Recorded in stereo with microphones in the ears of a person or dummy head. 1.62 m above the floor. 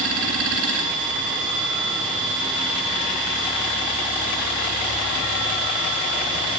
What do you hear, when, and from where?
0.0 s a machine running: 65° right (ahead or behind), 3.5 m